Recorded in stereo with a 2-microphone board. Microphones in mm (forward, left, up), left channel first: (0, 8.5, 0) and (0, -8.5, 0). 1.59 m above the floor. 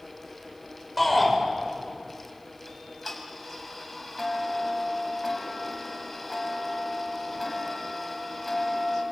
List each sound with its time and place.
1.0 s a shout: 10° right (ahead or behind), 7.5 m
2.7 s ticking: 5° right (ahead or behind), 5 m